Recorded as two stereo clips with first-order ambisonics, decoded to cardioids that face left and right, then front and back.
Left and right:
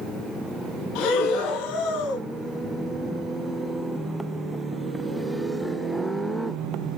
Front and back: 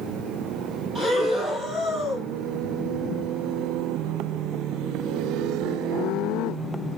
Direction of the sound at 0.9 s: 105° left.